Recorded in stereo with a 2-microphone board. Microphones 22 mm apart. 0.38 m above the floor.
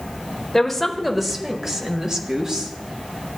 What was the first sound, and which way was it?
A woman speaking, 15° left (ahead or behind).